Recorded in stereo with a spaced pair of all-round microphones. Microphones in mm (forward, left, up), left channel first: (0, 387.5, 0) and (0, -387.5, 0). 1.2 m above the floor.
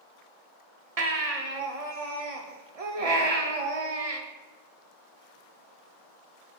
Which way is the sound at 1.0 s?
50° right (ahead or behind).